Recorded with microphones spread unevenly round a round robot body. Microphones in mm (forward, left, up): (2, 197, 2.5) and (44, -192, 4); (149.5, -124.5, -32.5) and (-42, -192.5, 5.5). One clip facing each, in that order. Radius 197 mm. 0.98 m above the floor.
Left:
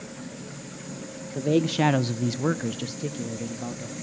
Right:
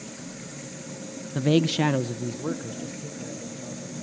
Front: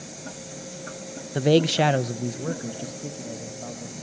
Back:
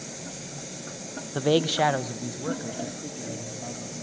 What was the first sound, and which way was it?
A man speaking, 40° right.